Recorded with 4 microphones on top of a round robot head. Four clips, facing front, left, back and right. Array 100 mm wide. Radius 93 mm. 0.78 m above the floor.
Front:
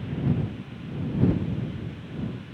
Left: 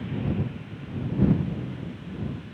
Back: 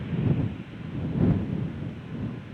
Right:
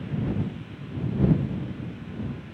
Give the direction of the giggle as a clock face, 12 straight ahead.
No giggle in this recording.